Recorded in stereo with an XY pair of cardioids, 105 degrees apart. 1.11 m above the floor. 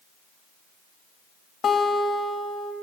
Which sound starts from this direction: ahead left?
A guitar, at 1.6 s.